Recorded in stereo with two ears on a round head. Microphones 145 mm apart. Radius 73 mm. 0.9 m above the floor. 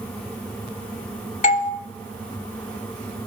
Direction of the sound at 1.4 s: 45° left (ahead or behind).